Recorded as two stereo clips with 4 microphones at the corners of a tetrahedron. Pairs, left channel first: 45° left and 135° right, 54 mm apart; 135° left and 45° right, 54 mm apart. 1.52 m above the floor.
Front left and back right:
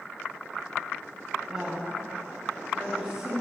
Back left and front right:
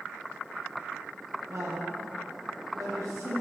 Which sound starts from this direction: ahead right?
A woman speaking, at 1.5 s.